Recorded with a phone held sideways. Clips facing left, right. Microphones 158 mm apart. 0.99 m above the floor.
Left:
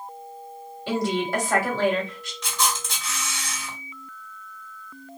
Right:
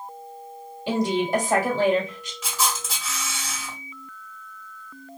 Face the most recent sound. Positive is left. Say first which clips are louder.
# even
turn(degrees=-5)  # may be behind; listen again after turning